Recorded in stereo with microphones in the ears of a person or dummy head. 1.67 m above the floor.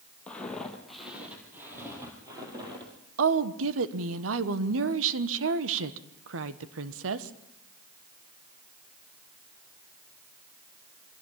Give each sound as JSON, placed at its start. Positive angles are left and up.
{"t": 0.3, "sound": "footsteps", "side_deg": 10, "distance_m": 3.5}
{"t": 3.2, "sound": "a woman speaking", "side_deg": -85, "distance_m": 1.2}